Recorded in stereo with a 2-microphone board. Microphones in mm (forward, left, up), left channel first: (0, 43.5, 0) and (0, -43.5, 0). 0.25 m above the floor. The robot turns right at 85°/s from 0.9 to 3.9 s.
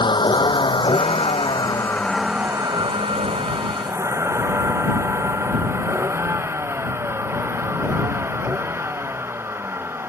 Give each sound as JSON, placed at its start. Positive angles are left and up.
{"t": 0.0, "sound": "a vehicle", "side_deg": 60}